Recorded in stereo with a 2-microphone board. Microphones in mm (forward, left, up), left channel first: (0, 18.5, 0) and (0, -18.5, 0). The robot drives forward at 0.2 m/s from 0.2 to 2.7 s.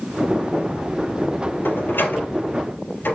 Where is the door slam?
70° left (ahead or behind), 3 m.